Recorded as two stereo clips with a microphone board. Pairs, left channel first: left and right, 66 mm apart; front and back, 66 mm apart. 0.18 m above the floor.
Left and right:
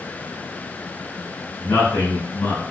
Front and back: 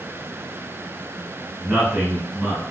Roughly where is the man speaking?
Left.